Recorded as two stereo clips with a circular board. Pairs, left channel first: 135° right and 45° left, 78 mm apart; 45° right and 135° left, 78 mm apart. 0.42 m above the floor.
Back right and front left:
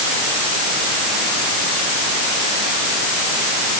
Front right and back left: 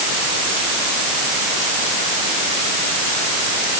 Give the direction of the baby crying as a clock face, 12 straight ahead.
No baby crying in this recording.